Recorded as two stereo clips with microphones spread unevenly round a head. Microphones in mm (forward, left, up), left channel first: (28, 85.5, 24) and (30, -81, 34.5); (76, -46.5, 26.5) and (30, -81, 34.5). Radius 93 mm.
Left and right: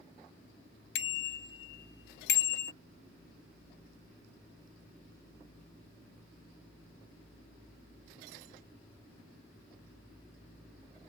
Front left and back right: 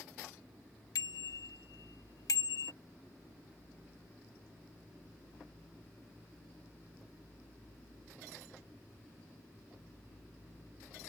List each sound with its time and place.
0.9 s a bicycle bell: 80° left; by 2.7 s 65° left